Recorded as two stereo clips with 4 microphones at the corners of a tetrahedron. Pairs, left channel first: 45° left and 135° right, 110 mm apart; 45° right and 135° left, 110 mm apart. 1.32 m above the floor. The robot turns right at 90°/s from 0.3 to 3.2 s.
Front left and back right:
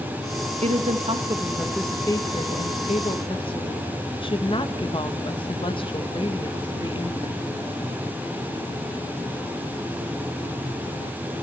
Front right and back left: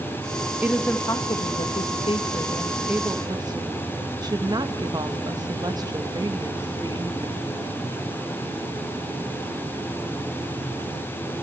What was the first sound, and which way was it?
A woman speaking, 150° right.